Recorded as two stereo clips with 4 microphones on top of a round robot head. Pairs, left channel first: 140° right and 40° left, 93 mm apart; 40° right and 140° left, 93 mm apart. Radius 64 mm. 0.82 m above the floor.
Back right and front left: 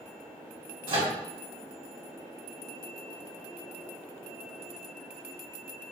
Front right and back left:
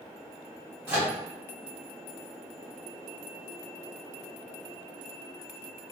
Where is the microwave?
70° left, 1.6 m.